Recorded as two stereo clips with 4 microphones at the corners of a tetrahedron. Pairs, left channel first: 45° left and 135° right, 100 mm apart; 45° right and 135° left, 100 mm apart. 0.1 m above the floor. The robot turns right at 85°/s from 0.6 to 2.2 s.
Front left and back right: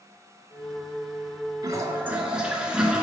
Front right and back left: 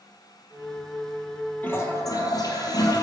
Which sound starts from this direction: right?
A toilet flushing, at 1.6 s.